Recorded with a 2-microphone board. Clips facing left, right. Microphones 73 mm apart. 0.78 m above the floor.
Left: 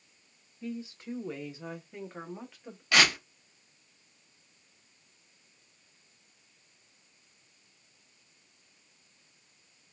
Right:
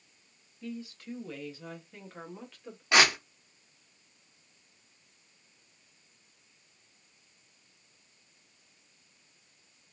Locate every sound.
0.6 s a woman speaking: 20° left (ahead or behind), 0.7 m; by 2.8 s 10° left (ahead or behind), 1.5 m
2.9 s tearing paper: 25° right (ahead or behind), 1.2 m